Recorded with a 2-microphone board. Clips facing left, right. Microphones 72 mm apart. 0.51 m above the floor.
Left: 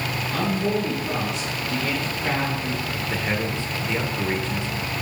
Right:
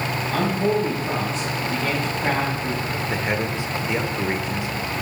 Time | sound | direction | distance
0.3 | a man speaking | 45° right (ahead or behind) | 4 m
3.1 | a man speaking | 15° right (ahead or behind) | 1.2 m